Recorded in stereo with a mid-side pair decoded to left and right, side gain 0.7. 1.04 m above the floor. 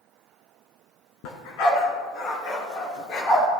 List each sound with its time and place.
1.2 s a dog barking: 70° left, 3 m; by 3.5 s 50° left, 4.5 m